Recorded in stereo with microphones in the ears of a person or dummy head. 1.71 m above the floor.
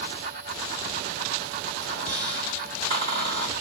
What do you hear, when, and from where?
1.8 s a squeak: 45° right (ahead or behind), 1.7 m